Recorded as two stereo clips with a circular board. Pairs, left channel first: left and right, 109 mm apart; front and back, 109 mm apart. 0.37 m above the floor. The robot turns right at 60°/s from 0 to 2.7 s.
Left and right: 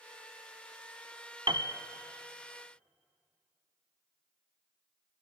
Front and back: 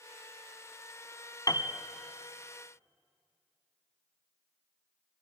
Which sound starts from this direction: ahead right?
A piano, at 1.5 s.